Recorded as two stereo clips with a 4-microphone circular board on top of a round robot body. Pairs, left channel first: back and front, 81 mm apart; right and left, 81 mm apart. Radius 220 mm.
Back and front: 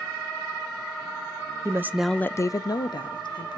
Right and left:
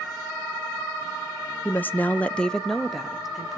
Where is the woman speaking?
30° right, 0.7 m; by 3.6 s 175° left, 1.5 m.